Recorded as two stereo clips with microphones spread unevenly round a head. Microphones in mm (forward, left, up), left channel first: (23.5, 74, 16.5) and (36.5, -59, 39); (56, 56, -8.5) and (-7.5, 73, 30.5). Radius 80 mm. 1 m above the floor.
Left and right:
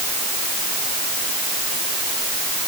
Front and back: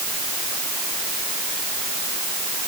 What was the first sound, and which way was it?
Only background noise.